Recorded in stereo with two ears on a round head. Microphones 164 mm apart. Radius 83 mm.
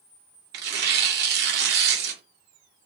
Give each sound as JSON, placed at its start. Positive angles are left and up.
{"t": 0.5, "sound": "tearing paper", "side_deg": -55, "distance_m": 0.6}